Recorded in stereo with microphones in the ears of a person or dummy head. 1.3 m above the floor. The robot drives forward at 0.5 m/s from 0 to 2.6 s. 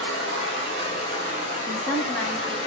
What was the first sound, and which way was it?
Running water, 75° right (ahead or behind).